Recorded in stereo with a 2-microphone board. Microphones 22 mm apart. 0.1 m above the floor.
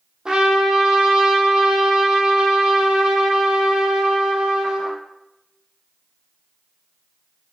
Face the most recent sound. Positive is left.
turn(degrees=-35)  # may be behind; listen again after turning